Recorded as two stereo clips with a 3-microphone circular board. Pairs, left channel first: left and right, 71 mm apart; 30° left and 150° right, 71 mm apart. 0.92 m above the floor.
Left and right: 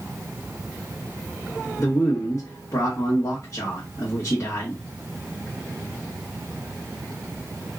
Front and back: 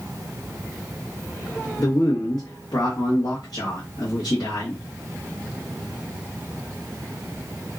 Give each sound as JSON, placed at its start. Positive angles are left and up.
{"t": 1.8, "sound": "a man speaking", "azimuth_deg": 45, "distance_m": 1.1}